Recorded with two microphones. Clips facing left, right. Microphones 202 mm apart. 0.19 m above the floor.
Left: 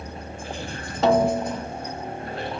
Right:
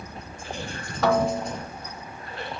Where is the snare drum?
25° left (ahead or behind).